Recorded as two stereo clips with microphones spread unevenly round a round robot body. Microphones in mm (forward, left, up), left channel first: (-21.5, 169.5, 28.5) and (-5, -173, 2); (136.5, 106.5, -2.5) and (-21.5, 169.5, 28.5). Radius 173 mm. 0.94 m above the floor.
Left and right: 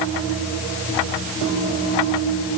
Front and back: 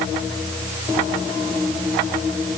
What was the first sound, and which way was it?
Only background noise.